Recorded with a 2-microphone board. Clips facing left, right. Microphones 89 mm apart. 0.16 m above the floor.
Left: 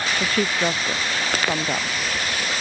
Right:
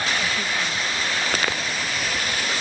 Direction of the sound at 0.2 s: 60° left (ahead or behind).